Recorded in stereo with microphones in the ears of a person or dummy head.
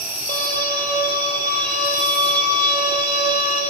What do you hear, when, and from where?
0.3 s a violin: 10° left (ahead or behind), 5 m